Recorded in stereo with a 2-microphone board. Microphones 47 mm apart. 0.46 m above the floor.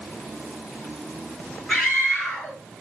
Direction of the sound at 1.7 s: 5° left (ahead or behind).